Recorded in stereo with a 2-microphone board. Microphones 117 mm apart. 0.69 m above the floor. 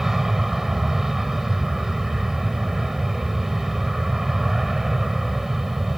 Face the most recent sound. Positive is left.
turn(degrees=0)  # may be behind; listen again after turning